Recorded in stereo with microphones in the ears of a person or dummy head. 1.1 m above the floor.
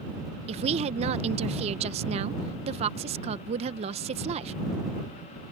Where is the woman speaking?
35° right (ahead or behind).